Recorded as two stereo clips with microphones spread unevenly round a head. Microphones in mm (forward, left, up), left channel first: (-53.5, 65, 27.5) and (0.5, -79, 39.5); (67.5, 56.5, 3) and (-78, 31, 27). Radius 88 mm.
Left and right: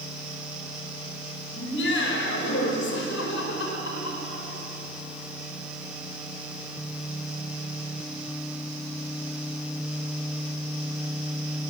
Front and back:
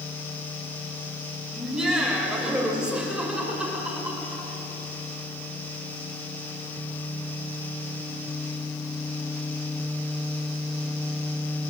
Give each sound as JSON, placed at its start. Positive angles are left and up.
{"t": 1.5, "sound": "laughter", "azimuth_deg": 105, "distance_m": 7.0}